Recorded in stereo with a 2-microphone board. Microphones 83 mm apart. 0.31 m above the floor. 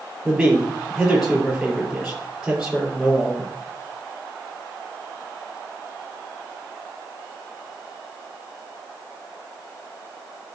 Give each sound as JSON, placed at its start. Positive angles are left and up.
{"t": 0.2, "sound": "a man speaking", "side_deg": -5, "distance_m": 5.5}